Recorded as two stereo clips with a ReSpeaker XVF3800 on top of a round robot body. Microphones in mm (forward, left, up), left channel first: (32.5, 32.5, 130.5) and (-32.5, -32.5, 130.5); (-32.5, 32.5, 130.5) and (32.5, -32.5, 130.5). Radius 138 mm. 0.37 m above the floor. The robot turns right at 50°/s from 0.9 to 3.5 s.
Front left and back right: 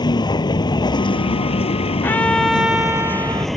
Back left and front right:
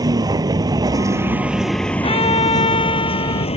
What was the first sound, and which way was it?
A vehicle, 5° left.